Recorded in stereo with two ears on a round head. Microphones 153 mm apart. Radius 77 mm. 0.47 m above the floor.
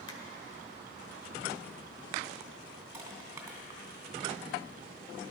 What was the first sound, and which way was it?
A finger snap, 30° left (ahead or behind).